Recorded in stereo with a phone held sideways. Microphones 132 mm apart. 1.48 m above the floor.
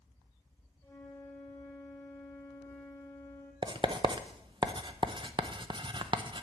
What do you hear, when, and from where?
0.8 s a flute: 15° left (ahead or behind), 1.9 m
3.6 s writing: 35° right (ahead or behind), 0.6 m